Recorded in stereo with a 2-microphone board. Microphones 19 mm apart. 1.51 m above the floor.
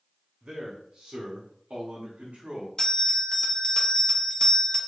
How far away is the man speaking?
About 0.8 m.